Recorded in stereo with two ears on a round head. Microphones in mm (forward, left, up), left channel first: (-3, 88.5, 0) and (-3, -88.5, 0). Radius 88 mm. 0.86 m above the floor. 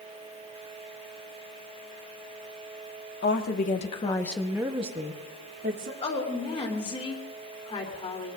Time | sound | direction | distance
3.2 | a woman speaking | 55° left (ahead or behind) | 1.9 m
6.0 | a woman speaking | 30° left (ahead or behind) | 3.5 m